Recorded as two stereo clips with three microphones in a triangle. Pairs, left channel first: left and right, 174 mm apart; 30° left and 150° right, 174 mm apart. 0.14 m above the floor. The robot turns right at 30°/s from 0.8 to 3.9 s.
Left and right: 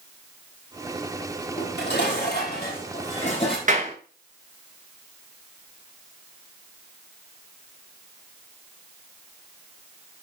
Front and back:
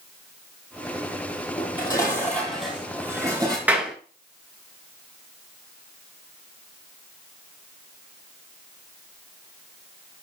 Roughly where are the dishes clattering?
Left.